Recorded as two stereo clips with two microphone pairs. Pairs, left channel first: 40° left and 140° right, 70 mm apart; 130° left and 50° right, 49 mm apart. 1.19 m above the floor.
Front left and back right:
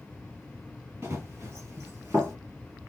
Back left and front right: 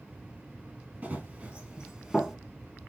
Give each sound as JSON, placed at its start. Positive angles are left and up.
{"t": 1.0, "sound": "running footsteps", "azimuth_deg": -90, "distance_m": 1.7}